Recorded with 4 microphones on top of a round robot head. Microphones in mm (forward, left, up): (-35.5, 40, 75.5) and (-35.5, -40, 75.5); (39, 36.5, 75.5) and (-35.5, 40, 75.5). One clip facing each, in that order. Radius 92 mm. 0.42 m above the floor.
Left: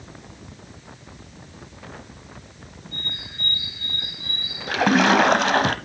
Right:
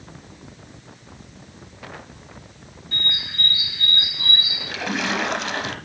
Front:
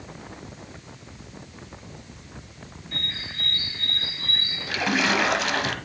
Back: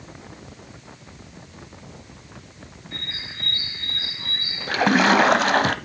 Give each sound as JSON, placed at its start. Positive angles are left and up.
{"t": 2.9, "sound": "a bird", "azimuth_deg": -100, "distance_m": 0.5}
{"t": 4.7, "sound": "a splash", "azimuth_deg": 130, "distance_m": 0.7}